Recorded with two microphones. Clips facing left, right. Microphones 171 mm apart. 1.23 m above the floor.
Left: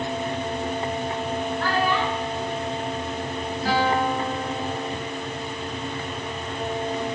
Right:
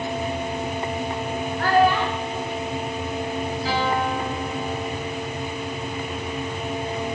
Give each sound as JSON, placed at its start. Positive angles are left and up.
{"t": 1.6, "sound": "a child speaking", "side_deg": -50, "distance_m": 1.5}
{"t": 3.6, "sound": "a guitar", "side_deg": 55, "distance_m": 7.5}